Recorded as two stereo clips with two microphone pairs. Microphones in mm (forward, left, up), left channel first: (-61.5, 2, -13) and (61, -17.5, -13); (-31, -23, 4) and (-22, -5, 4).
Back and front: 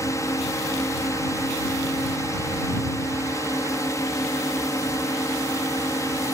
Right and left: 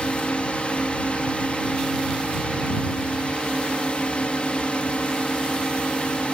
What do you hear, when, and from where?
0.0 s a drone: 125° right